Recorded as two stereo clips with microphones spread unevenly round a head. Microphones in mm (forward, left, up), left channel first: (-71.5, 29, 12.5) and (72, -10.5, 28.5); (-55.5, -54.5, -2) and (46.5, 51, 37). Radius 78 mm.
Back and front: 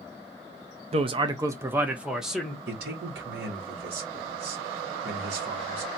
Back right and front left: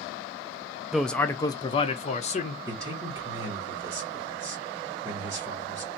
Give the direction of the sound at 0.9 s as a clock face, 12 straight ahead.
2 o'clock.